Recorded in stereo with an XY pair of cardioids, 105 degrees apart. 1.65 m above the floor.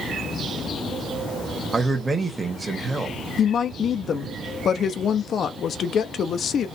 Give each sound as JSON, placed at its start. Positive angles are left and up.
{"t": 1.7, "sound": "a man speaking", "azimuth_deg": -20, "distance_m": 1.4}
{"t": 3.4, "sound": "a woman speaking", "azimuth_deg": 55, "distance_m": 0.8}